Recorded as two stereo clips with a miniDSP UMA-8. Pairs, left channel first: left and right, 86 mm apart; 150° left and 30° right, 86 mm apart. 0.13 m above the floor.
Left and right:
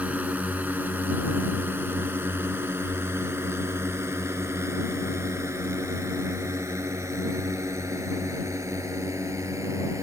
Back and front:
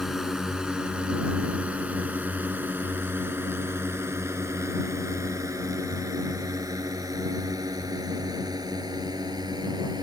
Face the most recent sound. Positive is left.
turn(degrees=-45)